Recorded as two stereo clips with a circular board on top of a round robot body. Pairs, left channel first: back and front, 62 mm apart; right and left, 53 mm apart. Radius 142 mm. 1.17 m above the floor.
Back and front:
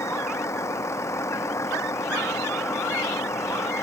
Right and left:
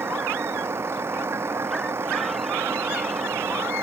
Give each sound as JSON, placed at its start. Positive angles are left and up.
{"t": 0.0, "sound": "a vehicle", "azimuth_deg": 135}